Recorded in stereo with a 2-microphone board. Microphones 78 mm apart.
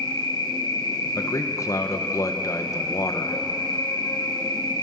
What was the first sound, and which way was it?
An insect, 70° left (ahead or behind).